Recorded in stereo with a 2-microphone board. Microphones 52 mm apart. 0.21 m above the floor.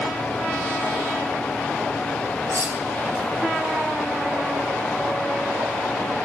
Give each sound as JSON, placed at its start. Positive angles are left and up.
{"t": 2.5, "sound": "cutlery clinking", "side_deg": -70, "distance_m": 2.5}